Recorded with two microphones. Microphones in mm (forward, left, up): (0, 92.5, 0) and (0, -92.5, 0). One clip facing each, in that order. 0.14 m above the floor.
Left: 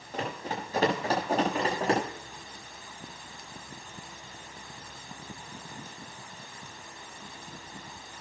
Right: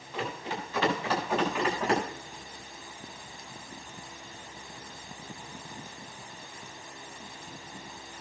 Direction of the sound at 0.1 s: 40° left (ahead or behind).